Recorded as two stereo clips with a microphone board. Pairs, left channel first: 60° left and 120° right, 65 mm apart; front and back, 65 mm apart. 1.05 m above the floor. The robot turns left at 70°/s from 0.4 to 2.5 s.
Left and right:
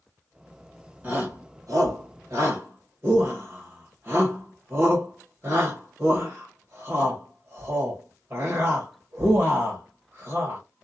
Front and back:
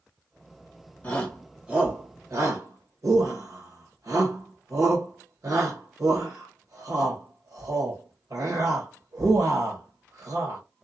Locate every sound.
1.0 s a shout: 65° right, 1.3 m; by 10.6 s 165° right, 1.3 m